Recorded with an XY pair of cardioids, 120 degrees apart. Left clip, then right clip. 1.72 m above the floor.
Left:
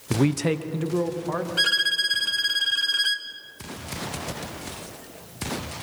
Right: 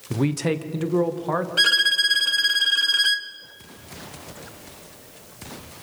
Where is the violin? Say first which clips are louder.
Right 4 dB; 20° right, 1.2 m.